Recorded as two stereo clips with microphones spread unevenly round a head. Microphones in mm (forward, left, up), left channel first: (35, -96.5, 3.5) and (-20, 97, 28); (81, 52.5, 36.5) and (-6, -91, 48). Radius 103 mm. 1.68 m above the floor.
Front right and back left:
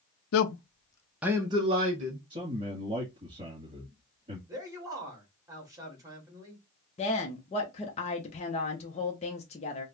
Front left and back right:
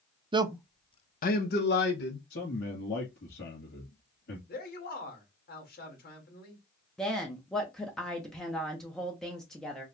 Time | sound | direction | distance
0.3 | a man speaking | 60° right | 0.6 m
2.3 | a man speaking | 45° left | 2.5 m
4.5 | a man speaking | 30° left | 1.9 m
7.0 | a woman speaking | 30° right | 0.7 m